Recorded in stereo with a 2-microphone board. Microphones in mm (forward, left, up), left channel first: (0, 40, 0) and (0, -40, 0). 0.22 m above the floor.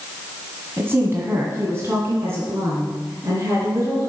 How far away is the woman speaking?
About 1.4 m.